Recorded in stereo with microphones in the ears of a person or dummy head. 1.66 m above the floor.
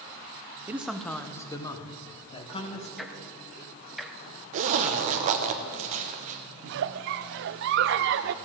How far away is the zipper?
About 0.8 m.